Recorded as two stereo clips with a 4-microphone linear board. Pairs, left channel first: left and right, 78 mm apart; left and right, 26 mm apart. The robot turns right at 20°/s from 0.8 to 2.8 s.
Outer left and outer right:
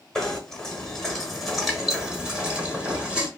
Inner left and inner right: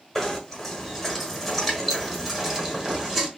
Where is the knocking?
10° left (ahead or behind), 1.1 m; by 3.3 s 10° right (ahead or behind), 1.1 m.